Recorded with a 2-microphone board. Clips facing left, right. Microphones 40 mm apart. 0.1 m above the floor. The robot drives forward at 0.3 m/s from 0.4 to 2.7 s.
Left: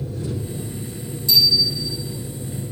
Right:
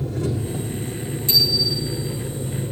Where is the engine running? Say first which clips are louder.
Right 3 dB; 70° right (ahead or behind), 5 m; by 2.7 s 65° right (ahead or behind), 5 m.